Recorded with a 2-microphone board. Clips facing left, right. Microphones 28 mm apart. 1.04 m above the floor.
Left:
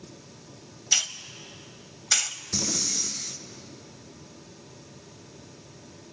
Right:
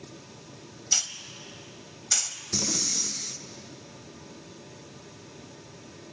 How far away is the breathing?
About 0.8 m.